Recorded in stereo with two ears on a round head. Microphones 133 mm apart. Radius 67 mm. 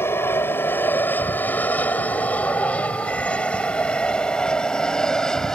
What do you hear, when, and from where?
0.0 s an aircraft: 15° left (ahead or behind); by 5.6 s 5° left (ahead or behind)